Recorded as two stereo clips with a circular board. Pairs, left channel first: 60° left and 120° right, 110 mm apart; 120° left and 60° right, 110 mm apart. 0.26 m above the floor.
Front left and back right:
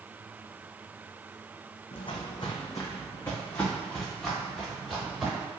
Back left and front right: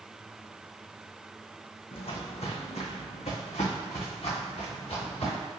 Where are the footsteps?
90° left, 0.8 m; by 5.5 s 155° left, 2.0 m.